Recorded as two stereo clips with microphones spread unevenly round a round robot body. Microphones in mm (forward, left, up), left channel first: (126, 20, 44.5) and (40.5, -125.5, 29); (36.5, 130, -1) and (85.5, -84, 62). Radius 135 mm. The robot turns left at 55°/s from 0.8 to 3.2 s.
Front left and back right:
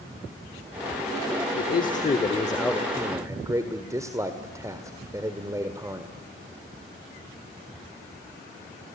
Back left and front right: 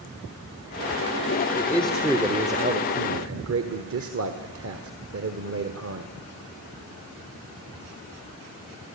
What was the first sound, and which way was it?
A man speaking, 40° left.